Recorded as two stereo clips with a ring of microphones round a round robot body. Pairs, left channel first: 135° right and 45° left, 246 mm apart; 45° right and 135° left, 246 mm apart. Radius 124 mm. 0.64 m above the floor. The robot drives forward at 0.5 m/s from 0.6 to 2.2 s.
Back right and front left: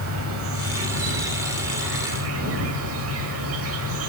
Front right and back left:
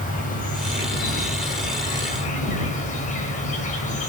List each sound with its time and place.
0.0 s an insect: 15° left, 6 m